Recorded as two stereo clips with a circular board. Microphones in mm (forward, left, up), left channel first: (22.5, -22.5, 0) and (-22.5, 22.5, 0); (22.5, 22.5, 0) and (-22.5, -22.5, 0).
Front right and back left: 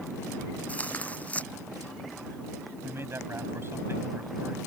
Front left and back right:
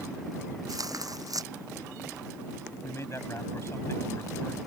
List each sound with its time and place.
0.7 s tearing paper: 115° right
2.8 s a man speaking: 85° left